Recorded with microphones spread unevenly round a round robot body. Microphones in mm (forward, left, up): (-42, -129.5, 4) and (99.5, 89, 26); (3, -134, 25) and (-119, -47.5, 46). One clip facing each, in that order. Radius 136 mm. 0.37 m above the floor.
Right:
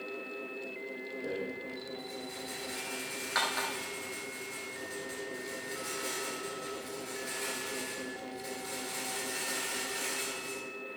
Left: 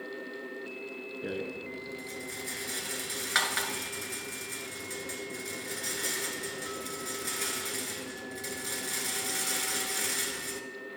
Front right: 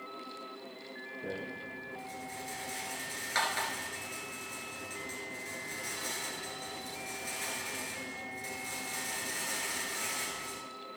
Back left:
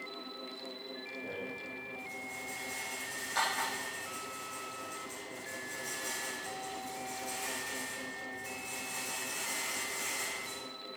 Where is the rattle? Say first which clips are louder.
Left 2 dB, front right 3 dB; 15° left, 1.2 m.